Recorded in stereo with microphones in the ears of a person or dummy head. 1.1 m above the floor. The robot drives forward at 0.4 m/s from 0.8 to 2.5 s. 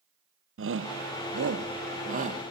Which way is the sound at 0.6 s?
65° right (ahead or behind).